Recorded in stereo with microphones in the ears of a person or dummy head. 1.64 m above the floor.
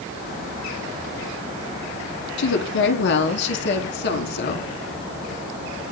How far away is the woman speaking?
About 4 m.